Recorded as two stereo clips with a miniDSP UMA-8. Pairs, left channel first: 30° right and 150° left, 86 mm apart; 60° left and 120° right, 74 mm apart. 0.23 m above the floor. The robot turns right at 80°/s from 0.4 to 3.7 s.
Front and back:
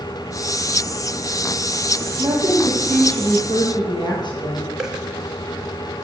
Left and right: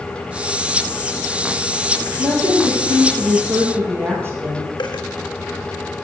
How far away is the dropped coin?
About 1.7 m.